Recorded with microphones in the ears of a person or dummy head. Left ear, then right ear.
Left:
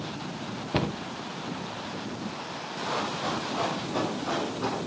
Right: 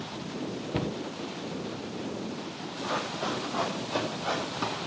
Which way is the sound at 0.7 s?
25° left (ahead or behind).